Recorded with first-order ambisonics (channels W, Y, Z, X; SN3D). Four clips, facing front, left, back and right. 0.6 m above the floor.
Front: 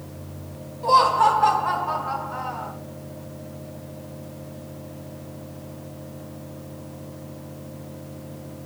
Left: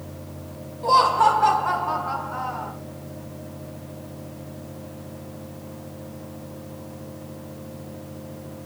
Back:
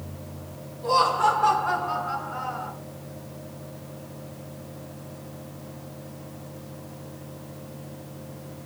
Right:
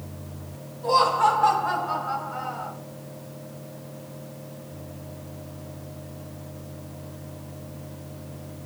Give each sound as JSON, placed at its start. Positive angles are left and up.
{"t": 0.8, "sound": "laughter", "azimuth_deg": 60, "distance_m": 4.5}